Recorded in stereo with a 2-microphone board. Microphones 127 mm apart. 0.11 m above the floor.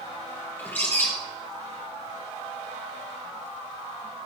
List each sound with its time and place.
0.6 s a bird: 15° left (ahead or behind), 2.5 m